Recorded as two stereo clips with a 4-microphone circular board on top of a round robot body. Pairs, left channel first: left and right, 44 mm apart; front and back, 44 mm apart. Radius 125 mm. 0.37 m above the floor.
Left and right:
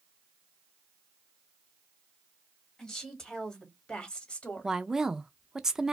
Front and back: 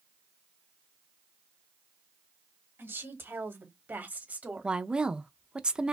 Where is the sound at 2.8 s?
170° left, 2.5 m; by 4.8 s 130° left, 1.6 m.